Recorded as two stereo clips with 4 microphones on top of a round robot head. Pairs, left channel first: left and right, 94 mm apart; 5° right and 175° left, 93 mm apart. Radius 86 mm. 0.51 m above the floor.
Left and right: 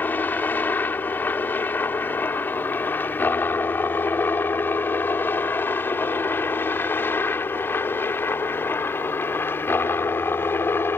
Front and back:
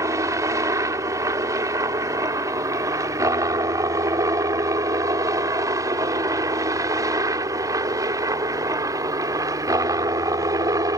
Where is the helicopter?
150° left; by 11.0 s 145° left.